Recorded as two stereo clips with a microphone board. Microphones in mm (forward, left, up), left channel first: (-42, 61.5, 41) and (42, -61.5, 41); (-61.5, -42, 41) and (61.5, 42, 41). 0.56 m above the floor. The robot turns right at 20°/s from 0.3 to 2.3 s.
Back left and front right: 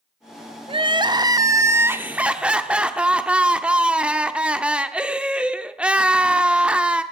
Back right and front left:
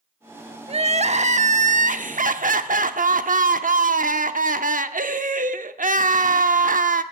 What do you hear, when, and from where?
0.7 s crying: 5° right, 0.8 m; by 7.0 s 25° left, 0.8 m